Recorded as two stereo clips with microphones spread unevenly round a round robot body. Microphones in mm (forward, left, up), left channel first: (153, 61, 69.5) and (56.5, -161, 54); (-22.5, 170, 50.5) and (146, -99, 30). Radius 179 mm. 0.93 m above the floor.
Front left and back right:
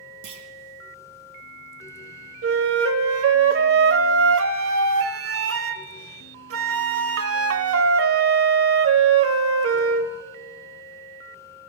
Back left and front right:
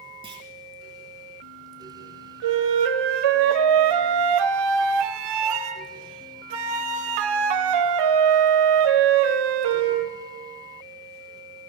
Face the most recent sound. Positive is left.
turn(degrees=-85)